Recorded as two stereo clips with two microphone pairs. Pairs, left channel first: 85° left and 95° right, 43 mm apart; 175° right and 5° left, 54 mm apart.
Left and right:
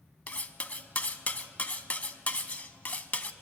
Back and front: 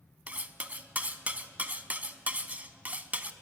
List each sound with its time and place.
0.3 s cutlery clinking: 50° left, 0.7 m